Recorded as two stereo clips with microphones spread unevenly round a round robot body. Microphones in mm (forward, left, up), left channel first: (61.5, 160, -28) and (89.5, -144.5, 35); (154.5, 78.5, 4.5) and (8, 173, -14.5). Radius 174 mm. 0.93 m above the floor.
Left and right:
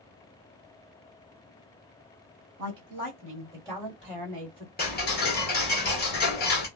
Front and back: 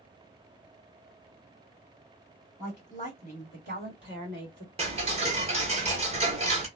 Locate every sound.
2.6 s a woman speaking: 140° right, 1.4 m; by 4.7 s 160° left, 1.4 m
4.8 s ticking: 125° left, 1.1 m